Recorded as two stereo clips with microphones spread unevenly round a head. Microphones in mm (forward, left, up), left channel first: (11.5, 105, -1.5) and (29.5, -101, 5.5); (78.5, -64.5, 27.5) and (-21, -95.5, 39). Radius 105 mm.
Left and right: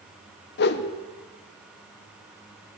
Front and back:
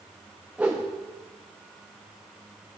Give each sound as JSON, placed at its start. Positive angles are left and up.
{"t": 0.6, "sound": "a whoosh", "azimuth_deg": 120, "distance_m": 0.5}